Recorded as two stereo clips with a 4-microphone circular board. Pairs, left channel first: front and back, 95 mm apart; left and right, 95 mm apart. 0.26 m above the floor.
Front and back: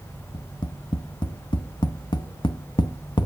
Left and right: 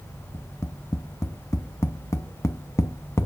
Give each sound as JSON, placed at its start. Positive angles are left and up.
{"t": 0.3, "sound": "tapping", "azimuth_deg": 30, "distance_m": 0.5}